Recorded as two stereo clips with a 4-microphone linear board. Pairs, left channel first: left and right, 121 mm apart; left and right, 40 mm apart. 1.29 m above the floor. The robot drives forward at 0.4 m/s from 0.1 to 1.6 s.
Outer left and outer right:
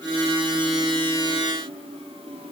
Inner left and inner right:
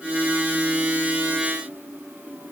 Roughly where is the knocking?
I don't hear knocking.